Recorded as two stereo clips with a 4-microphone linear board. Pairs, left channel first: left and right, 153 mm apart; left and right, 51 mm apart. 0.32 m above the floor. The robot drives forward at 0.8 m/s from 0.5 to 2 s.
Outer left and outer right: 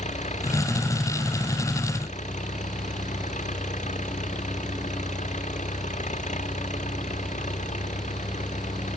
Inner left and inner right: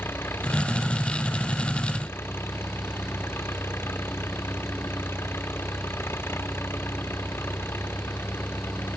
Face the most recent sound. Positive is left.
turn(degrees=50)  # may be behind; listen again after turning